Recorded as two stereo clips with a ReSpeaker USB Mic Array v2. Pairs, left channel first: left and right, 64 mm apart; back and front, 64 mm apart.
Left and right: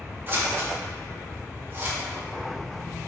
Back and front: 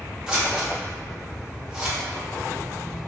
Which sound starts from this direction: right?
Scissors, at 0.3 s.